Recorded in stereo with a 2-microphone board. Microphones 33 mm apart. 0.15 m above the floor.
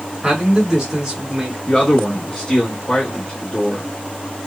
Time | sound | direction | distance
0.2 | a man speaking | 15° right (ahead or behind) | 1.8 m
1.7 | a man speaking | 20° left (ahead or behind) | 1.0 m